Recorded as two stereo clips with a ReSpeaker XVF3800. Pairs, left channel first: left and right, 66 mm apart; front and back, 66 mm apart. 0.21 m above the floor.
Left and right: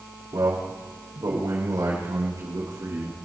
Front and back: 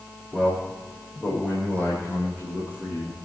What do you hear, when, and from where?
0.3 s a man speaking: 70° right, 8.5 m; by 3.2 s 50° right, 7.5 m